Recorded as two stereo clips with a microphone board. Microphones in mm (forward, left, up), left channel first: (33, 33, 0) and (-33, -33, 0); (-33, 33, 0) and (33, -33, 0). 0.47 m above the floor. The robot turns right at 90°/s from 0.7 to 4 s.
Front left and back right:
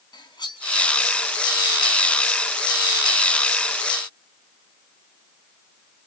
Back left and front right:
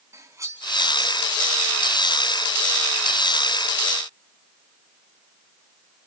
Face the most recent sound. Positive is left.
turn(degrees=-55)